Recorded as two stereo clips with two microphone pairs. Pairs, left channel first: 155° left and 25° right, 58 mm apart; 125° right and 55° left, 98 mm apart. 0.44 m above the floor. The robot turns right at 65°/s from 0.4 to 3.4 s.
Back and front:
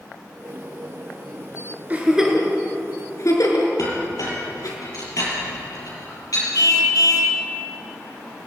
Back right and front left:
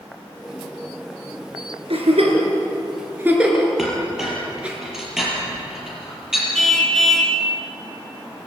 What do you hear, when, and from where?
1.9 s a giggle: 35° left, 4 m; by 4.8 s 135° left, 4 m
3.8 s a clink: 140° left, 6.5 m
6.5 s a car horn: 150° left, 2.5 m